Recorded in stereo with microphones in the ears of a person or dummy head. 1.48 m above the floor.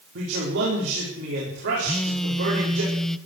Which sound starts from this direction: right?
A man speaking, at 0.1 s.